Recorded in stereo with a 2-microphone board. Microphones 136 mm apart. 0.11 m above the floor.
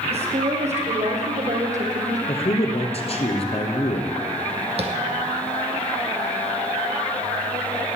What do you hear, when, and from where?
0.1 s a woman speaking: 50° right (ahead or behind), 4 m; by 2.2 s 65° right (ahead or behind), 4 m
2.3 s a man speaking: 50° left (ahead or behind), 2.0 m
4.8 s tapping: 45° right (ahead or behind), 1.7 m